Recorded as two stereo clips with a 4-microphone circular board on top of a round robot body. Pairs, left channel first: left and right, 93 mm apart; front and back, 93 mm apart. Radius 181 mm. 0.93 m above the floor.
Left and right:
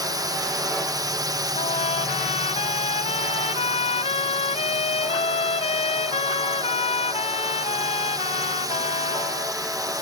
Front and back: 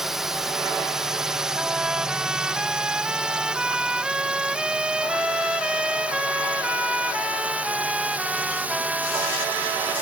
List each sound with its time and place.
0.0 s a drone: 95° right; by 10.0 s 115° right
1.6 s a trumpet: 95° left